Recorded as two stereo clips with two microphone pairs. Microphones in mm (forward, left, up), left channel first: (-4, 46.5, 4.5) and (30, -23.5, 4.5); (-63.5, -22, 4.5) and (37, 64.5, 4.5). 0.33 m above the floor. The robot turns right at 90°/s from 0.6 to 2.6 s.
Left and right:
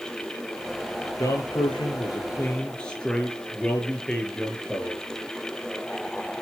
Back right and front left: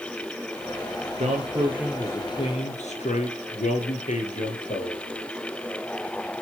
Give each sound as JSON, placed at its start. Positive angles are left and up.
{"t": 1.2, "sound": "a man speaking", "azimuth_deg": 65, "distance_m": 7.0}